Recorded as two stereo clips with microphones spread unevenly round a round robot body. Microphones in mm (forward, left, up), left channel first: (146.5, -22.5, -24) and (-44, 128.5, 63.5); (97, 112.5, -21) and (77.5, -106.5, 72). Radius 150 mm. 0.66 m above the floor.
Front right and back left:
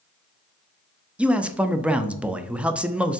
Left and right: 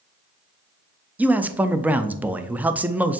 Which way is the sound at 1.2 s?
25° left.